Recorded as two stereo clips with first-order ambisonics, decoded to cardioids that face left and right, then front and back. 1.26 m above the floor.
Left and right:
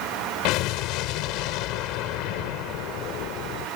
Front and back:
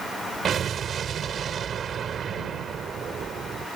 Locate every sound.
0.5 s an explosion: 115° left